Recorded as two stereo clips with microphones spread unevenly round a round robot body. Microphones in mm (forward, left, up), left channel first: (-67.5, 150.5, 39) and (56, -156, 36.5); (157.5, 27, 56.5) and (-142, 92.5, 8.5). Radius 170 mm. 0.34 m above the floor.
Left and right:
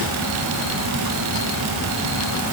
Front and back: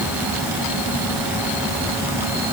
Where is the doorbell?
No doorbell in this recording.